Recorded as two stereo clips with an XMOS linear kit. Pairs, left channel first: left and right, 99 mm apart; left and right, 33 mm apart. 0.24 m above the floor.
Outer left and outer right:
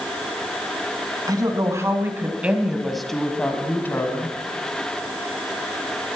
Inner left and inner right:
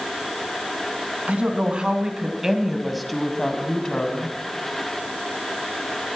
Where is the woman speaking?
40° right (ahead or behind), 2 m; by 4.4 s 30° left (ahead or behind), 2 m.